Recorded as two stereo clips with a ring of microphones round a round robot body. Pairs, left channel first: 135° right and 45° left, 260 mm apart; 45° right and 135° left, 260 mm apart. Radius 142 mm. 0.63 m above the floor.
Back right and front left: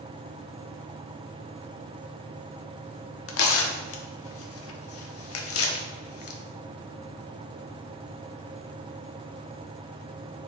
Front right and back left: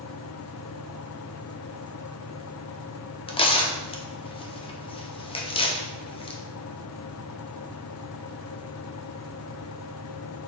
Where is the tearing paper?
115° right, 0.9 m.